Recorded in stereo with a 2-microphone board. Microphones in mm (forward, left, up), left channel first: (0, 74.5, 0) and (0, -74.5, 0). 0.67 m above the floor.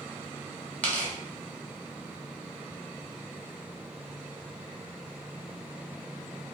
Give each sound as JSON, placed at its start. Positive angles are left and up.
{"t": 0.8, "sound": "tearing paper", "side_deg": 10, "distance_m": 1.0}